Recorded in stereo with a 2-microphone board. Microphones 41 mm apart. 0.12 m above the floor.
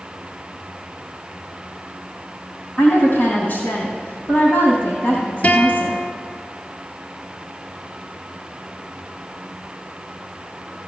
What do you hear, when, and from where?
2.8 s a woman speaking: 50° left (ahead or behind), 4 m
5.4 s a guitar: 40° left (ahead or behind), 1.7 m